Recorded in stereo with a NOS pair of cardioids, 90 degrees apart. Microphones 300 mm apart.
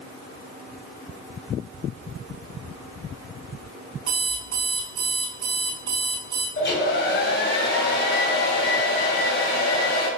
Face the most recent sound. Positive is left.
turn(degrees=35)